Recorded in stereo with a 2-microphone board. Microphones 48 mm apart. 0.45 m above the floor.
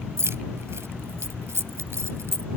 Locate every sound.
0.2 s keys jangling: 70° right (ahead or behind)